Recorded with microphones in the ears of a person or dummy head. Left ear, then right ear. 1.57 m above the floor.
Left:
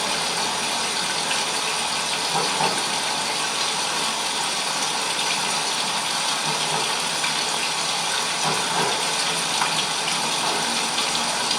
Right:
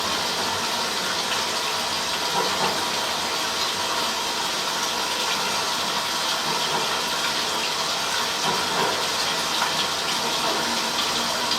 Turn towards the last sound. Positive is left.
turn(degrees=45)  # may be behind; listen again after turning